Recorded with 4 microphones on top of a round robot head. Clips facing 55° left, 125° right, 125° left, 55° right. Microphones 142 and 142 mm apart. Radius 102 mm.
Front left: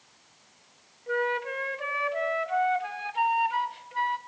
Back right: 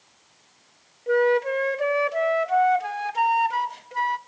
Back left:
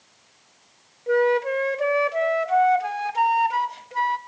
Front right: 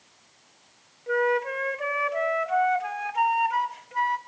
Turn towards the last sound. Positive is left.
turn(degrees=-175)